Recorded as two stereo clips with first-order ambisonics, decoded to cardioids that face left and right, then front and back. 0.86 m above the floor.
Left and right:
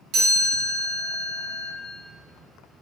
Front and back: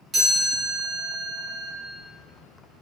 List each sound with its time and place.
0.1 s a chime: 110° right, 1.6 m